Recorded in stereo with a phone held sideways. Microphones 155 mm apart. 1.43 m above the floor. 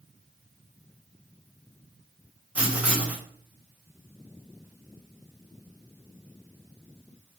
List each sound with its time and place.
2.5 s writing: 10° right (ahead or behind), 1.4 m